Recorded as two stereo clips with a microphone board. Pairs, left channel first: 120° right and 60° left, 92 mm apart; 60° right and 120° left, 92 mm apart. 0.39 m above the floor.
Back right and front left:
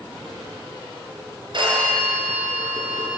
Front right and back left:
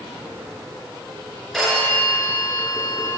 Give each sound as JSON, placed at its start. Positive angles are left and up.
{"t": 1.5, "sound": "a phone ringing", "azimuth_deg": 30, "distance_m": 4.0}